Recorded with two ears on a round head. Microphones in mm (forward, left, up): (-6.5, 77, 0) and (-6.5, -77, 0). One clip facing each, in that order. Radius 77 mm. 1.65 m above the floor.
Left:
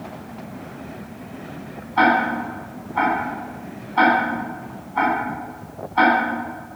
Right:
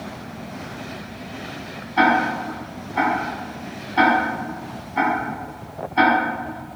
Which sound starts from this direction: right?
Ticking, at 2.0 s.